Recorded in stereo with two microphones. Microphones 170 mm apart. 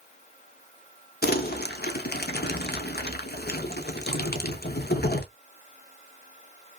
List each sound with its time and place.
1.2 s crumpling: 70° left (ahead or behind), 0.9 m